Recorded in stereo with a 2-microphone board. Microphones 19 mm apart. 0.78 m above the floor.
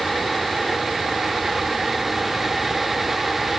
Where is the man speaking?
No man speaking in this recording.